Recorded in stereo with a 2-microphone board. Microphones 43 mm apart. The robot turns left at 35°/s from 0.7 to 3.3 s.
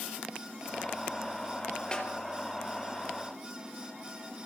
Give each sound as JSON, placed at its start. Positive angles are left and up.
{"t": 1.9, "sound": "a snare drum", "side_deg": 20, "distance_m": 4.0}